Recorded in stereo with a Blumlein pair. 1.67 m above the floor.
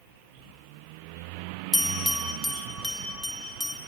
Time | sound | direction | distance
1.7 | a bell | 5° left | 2.5 m